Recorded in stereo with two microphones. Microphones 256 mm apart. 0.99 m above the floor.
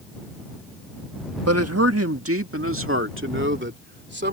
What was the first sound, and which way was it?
A man speaking, 75° right (ahead or behind).